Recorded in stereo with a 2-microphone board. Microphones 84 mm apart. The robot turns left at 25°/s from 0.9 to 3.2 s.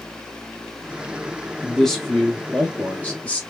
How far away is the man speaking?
About 0.9 m.